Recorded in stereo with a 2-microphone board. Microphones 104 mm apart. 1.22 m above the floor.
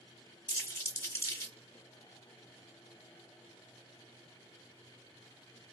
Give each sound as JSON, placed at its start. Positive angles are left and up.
{"t": 0.5, "sound": "crumpling", "side_deg": 30, "distance_m": 1.5}